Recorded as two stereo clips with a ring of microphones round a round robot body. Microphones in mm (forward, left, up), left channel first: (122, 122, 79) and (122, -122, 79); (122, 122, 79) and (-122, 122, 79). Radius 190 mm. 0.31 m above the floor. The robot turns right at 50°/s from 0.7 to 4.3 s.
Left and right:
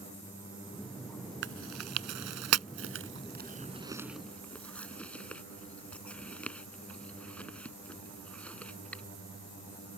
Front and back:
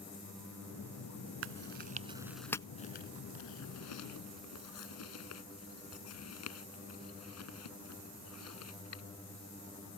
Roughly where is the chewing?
Behind right.